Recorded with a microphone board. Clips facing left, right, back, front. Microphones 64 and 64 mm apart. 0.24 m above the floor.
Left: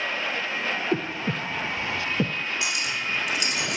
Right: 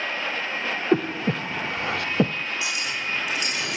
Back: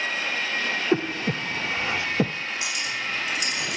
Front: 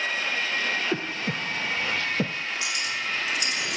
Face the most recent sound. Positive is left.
turn(degrees=90)